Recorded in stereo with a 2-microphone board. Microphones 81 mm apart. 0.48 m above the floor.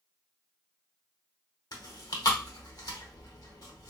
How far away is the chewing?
About 0.9 m.